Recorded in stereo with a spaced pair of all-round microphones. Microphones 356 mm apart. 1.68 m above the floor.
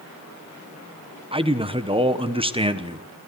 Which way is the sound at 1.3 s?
15° right (ahead or behind).